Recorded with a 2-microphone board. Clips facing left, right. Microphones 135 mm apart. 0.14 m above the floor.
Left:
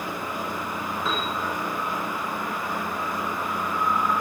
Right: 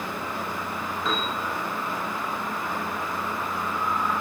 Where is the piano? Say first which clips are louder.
Right 1 dB; 5° left (ahead or behind), 9 m.